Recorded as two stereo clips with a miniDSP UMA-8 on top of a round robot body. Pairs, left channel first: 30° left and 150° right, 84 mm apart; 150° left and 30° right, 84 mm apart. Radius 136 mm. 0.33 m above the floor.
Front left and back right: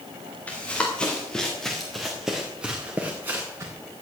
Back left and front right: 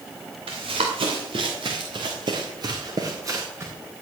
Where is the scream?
No scream in this recording.